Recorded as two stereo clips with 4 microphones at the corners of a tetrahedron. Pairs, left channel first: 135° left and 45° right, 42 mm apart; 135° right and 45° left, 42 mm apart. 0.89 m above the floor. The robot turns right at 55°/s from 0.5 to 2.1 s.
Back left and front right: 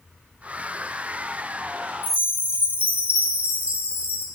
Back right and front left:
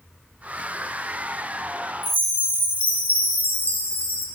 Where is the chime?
95° right, 0.6 m; by 4.3 s 90° right, 0.6 m.